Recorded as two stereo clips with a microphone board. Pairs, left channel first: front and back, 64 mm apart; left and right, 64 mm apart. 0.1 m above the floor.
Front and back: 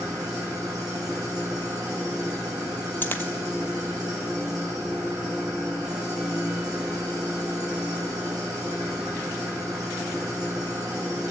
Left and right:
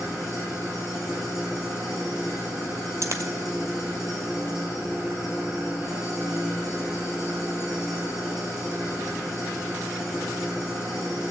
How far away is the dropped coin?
About 0.8 m.